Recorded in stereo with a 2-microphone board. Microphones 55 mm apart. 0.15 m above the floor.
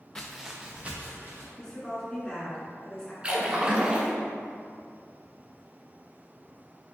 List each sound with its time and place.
0.1 s footsteps: 20° left (ahead or behind), 0.7 m; by 1.5 s 40° right (ahead or behind), 1.9 m
1.6 s a woman speaking: 15° left (ahead or behind), 1.6 m
3.2 s a splash: 20° right (ahead or behind), 0.7 m